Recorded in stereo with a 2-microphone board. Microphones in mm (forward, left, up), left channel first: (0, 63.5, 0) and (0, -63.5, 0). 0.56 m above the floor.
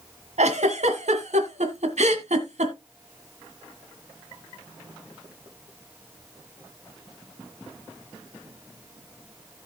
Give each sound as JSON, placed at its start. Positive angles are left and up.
{"t": 0.4, "sound": "a giggle", "side_deg": -70, "distance_m": 1.6}